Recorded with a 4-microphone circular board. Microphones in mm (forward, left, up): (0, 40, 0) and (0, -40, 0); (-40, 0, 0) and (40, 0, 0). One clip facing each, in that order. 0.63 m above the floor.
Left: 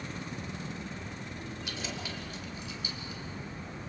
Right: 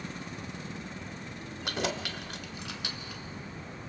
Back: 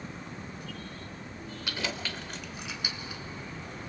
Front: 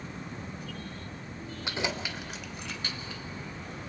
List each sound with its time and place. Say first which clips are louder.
1.6 s keys jangling: right 9 dB, front 2 dB; 65° right, 1.2 m; by 3.2 s 110° right, 1.4 m